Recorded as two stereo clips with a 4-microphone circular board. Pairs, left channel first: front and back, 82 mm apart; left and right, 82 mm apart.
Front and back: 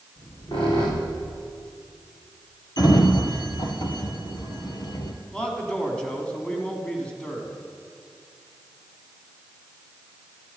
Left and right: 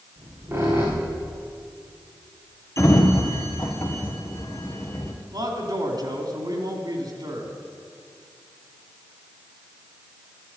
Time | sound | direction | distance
0.2 | a squeak | 30° right | 4 m
2.8 | a sliding door | 35° left | 1.7 m
5.3 | a man speaking | 75° right | 3 m